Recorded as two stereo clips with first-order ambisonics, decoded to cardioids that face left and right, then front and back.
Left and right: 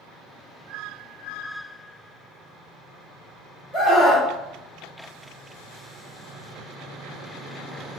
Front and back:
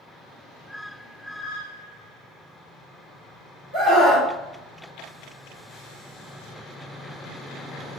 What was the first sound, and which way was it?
A scream, 155° left.